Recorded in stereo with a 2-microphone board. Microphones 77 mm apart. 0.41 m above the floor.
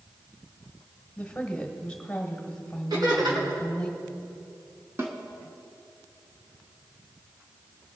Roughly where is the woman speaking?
Centre.